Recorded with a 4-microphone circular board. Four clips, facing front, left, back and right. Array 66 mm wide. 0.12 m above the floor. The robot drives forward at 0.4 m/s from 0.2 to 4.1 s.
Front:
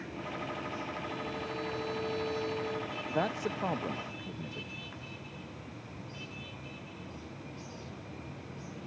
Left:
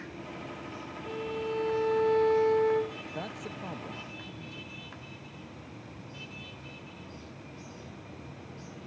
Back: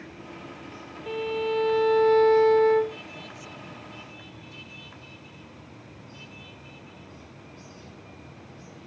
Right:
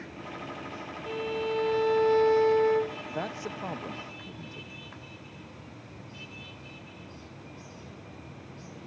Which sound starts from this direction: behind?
A violin, at 1.1 s.